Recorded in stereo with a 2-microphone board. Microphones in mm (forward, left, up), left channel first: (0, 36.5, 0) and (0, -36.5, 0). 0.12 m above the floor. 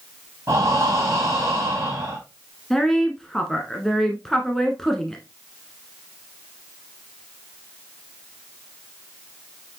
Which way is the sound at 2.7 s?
5° left (ahead or behind).